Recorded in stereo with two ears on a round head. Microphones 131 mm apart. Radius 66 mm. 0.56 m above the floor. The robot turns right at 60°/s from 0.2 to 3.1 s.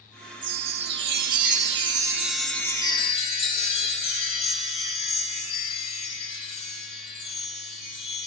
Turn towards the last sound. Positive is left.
turn(degrees=40)